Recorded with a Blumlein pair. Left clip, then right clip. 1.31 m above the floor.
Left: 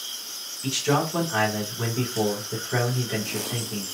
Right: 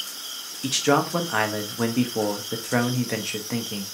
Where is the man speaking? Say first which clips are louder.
Right 3 dB; 70° right, 0.9 m.